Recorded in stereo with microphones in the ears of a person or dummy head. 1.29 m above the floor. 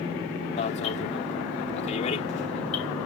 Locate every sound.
0.6 s an alarm: 45° left (ahead or behind)